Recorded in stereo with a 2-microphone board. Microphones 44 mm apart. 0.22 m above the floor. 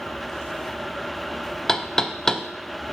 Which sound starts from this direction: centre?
Knocking, at 1.7 s.